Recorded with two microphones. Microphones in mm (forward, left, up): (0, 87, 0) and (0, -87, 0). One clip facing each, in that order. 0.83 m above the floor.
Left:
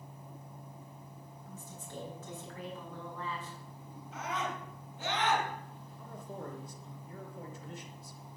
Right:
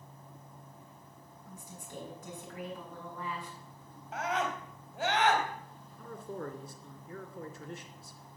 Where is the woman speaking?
15° right (ahead or behind), 8 m.